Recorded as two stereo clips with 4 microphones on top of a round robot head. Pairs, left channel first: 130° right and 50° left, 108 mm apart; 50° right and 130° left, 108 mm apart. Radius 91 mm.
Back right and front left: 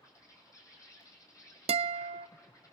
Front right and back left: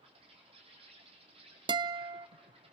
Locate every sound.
0.0 s an insect: 170° left, 4 m
1.7 s a guitar: 80° left, 0.6 m